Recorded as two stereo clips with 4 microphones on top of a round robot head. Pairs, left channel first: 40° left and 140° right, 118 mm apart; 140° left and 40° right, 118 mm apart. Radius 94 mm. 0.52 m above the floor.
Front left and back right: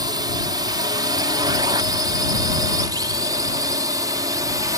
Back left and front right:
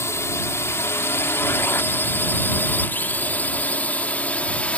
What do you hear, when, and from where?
0.0 s a drone: 165° right; by 4.8 s 150° right